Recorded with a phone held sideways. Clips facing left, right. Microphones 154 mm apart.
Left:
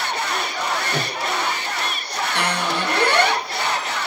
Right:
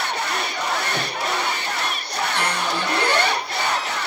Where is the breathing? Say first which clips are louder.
Left 1 dB; 65° left (ahead or behind), 1.6 m.